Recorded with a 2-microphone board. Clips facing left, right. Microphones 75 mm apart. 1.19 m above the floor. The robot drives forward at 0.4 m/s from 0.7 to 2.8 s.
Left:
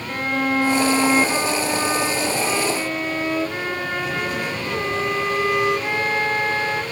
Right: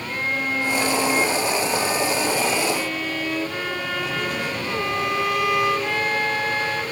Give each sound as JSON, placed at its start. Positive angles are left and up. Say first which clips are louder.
{"t": 0.1, "sound": "a violin", "louder": "left 4 dB", "side_deg": 60, "distance_m": 0.7}